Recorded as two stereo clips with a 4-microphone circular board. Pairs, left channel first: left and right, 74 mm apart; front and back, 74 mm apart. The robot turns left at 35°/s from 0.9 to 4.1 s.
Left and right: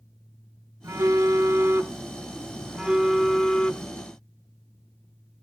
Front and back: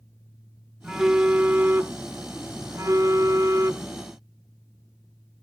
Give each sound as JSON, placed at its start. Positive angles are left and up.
{"t": 0.8, "sound": "a phone buzzing", "azimuth_deg": -95, "distance_m": 1.2}